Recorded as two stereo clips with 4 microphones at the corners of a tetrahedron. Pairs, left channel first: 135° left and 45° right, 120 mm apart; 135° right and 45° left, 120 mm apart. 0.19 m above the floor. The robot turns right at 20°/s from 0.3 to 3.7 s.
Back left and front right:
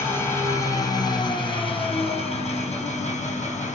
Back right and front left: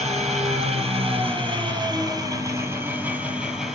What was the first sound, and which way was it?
An engine running, 65° left.